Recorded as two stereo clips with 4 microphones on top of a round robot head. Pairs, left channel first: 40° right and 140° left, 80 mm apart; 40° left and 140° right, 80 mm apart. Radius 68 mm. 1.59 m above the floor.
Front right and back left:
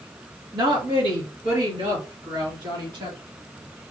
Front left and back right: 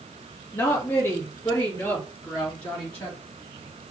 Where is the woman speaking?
105° left, 1.6 m; by 3.2 s 110° left, 3 m.